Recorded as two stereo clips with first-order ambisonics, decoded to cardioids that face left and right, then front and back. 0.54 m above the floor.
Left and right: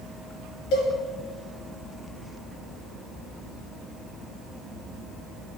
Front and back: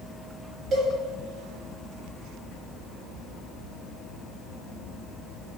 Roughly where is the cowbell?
Left.